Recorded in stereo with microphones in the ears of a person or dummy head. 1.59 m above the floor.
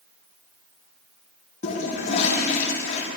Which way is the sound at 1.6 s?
40° left (ahead or behind).